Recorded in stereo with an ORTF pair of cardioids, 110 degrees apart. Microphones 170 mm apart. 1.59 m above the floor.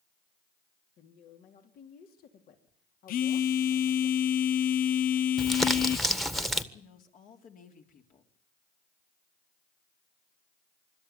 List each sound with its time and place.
1.0 s a woman speaking: 65° left, 3.5 m
3.1 s a phone buzzing: 60° left, 0.6 m
5.4 s crumpling: straight ahead, 1.5 m
6.7 s a woman speaking: 55° left, 3.5 m